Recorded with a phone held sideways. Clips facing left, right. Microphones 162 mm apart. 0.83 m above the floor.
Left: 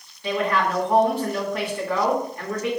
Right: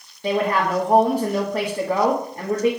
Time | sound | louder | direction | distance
0.2 | a woman speaking | right 2 dB | 40° right (ahead or behind) | 1.2 m